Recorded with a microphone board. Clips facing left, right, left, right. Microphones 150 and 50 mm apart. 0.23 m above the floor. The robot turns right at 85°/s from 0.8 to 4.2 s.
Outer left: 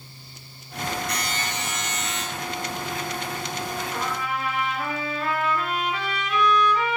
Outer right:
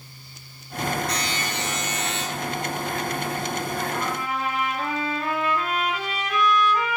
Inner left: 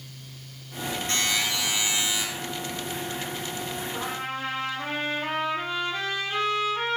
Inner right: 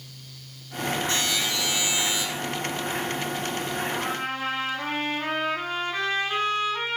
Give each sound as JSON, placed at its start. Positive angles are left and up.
{"t": 1.1, "sound": "a buzzer", "azimuth_deg": 125, "distance_m": 1.0}
{"t": 3.9, "sound": "a trumpet", "side_deg": -55, "distance_m": 0.8}